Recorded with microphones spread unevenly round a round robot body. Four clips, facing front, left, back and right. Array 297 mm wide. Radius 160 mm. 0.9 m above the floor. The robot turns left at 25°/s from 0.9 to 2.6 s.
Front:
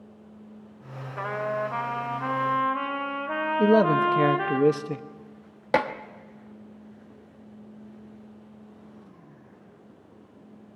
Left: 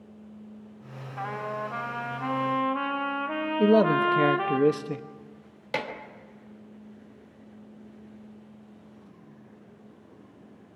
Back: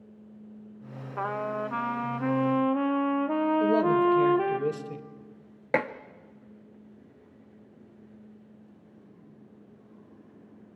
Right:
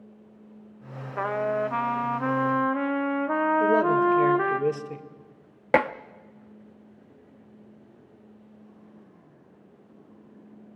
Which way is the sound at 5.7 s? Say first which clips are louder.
Right 10 dB, front 4 dB; 50° right.